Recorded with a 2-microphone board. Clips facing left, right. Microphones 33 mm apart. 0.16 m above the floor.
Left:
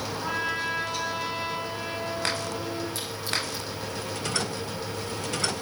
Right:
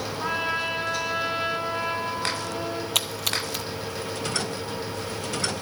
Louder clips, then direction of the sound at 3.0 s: Right 4 dB; 75° right (ahead or behind).